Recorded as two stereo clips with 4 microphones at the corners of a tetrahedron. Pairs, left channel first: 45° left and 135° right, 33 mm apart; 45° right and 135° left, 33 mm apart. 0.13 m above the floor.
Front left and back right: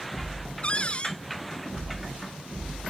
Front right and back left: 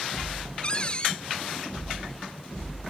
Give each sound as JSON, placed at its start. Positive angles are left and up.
{"t": 0.6, "sound": "a cupboard door", "azimuth_deg": 5}